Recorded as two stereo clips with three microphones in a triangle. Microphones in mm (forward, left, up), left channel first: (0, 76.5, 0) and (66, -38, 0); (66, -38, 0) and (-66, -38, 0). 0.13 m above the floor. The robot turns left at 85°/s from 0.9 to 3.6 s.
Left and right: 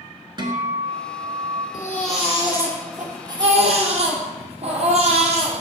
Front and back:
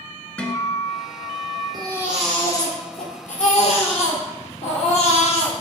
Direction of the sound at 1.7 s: 130° left.